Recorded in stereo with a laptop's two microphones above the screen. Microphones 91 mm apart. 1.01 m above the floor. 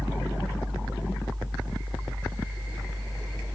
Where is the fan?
20° right (ahead or behind), 4.5 m.